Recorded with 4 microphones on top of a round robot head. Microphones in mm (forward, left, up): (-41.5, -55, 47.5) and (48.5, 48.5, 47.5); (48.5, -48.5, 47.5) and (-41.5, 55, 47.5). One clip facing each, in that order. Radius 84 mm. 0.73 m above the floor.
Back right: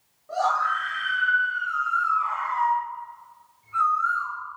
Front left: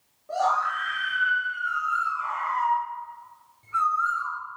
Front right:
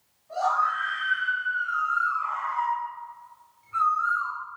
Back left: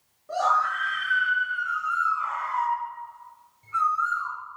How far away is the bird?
About 7 m.